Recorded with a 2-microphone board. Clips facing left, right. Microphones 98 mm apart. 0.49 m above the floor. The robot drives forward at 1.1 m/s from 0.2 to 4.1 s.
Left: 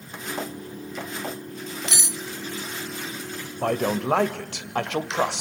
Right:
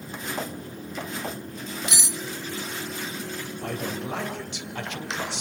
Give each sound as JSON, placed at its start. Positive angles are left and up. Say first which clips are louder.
{"t": 1.9, "sound": "cutlery clinking", "louder": "even", "side_deg": -15, "distance_m": 1.1}
{"t": 3.6, "sound": "a man speaking", "louder": "left 9 dB", "side_deg": 60, "distance_m": 1.7}